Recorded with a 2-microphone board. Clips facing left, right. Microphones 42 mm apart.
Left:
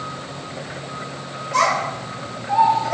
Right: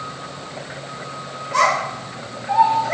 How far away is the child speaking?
About 1.1 m.